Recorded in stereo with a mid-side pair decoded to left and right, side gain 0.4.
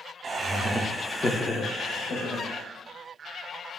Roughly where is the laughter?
Ahead right.